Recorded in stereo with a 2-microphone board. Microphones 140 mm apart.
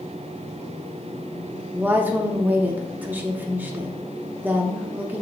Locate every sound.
1.7 s a woman speaking: 10° right (ahead or behind), 0.7 m